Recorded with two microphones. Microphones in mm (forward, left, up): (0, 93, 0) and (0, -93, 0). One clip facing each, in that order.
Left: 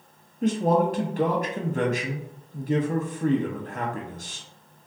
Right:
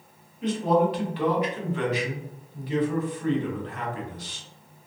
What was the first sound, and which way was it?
A man speaking, 45° left (ahead or behind).